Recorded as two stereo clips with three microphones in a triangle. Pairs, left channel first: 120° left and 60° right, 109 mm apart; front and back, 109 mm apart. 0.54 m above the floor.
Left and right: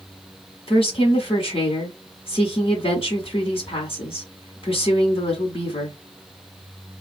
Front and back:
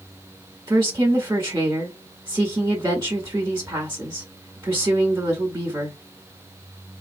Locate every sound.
0.7 s a woman speaking: 125° left, 1.3 m